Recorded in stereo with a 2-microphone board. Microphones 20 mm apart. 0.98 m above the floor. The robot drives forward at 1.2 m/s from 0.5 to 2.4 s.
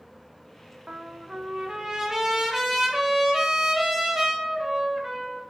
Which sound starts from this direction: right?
A trumpet, at 0.9 s.